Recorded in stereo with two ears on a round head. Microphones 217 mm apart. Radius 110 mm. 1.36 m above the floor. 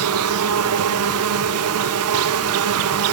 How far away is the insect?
About 0.9 m.